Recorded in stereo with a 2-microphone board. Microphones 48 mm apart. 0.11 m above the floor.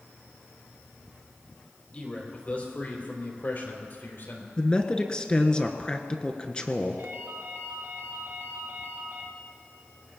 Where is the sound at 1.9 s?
30° left (ahead or behind), 3.5 m; by 4.5 s 55° left (ahead or behind), 3.5 m.